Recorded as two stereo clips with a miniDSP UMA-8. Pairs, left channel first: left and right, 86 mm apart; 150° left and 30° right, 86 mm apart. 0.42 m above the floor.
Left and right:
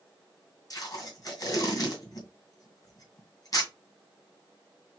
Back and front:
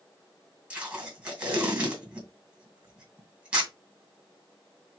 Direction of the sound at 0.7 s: 45° left.